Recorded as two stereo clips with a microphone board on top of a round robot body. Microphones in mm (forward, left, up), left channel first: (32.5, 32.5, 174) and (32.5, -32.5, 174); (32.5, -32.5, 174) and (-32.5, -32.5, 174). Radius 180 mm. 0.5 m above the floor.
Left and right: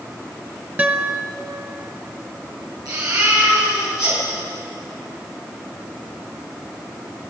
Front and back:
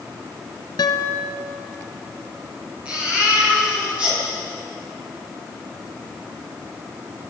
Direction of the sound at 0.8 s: 20° right.